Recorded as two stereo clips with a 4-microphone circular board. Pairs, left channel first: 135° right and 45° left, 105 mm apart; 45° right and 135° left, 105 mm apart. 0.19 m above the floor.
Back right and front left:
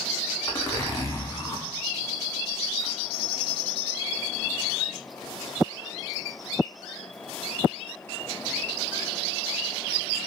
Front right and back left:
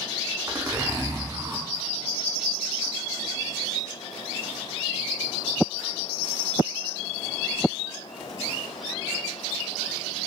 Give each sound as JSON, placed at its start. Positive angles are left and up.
{"t": 0.5, "sound": "a zipper", "azimuth_deg": 180, "distance_m": 0.5}